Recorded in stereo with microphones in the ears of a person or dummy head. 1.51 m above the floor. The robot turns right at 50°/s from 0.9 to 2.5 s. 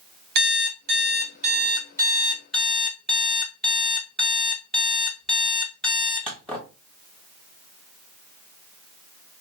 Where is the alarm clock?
75° right, 1.5 m; by 6.7 s 5° left, 1.5 m.